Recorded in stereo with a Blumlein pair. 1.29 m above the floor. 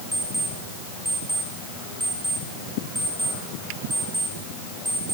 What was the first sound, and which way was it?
An alarm clock, 10° right.